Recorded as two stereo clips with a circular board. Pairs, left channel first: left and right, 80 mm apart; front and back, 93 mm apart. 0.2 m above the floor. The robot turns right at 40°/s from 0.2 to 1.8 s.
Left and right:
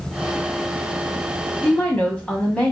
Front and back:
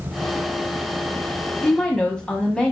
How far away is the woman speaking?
About 1.2 m.